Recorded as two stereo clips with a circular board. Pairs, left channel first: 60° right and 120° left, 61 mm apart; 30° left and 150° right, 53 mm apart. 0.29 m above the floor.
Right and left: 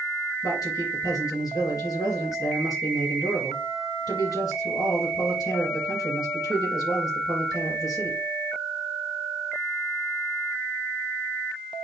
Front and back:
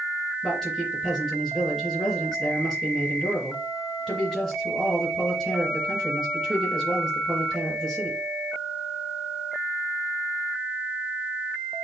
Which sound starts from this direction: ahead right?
A man speaking, at 0.4 s.